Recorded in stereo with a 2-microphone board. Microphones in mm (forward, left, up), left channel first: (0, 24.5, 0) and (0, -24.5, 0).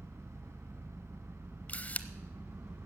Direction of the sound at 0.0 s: 75° right (ahead or behind).